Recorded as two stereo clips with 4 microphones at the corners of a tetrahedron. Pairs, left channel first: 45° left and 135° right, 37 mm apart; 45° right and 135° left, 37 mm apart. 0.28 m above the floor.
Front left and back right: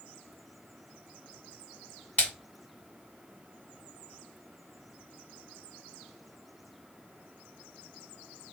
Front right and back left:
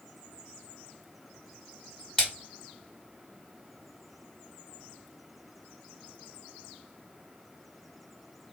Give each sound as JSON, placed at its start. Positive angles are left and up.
{"t": 2.2, "sound": "a splash", "azimuth_deg": 20, "distance_m": 1.9}